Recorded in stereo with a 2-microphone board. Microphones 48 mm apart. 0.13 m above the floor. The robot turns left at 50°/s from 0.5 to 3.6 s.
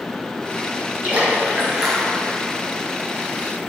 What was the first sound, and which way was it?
A splash, 130° right.